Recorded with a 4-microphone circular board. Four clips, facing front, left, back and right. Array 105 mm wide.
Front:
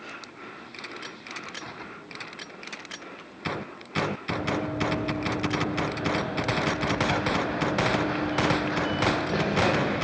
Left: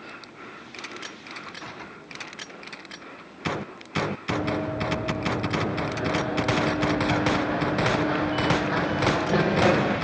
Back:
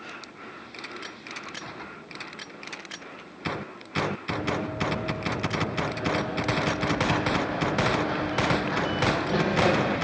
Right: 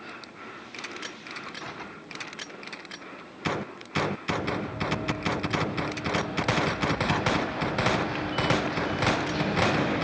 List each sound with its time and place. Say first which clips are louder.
4.3 s running footsteps: left 4 dB, front 1 dB; 65° left, 4 m; by 9.9 s 85° left, 6 m